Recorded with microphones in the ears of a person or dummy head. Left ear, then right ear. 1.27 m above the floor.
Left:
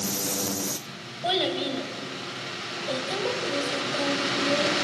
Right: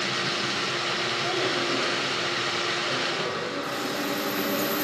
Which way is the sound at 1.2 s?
55° left (ahead or behind).